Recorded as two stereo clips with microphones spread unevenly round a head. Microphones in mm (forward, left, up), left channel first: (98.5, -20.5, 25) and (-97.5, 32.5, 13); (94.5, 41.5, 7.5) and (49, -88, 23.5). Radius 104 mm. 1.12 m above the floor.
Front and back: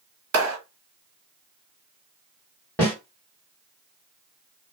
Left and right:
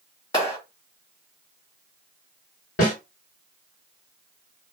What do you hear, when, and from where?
0.3 s a clap: 145° left, 1.4 m
2.8 s a snare drum: 65° left, 2 m